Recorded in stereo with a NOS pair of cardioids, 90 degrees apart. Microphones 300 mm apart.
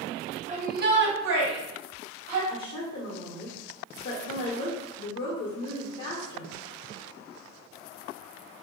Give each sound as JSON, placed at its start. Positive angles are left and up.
{"t": 0.5, "sound": "a shout", "azimuth_deg": -25, "distance_m": 0.9}
{"t": 2.5, "sound": "a woman speaking", "azimuth_deg": 45, "distance_m": 1.0}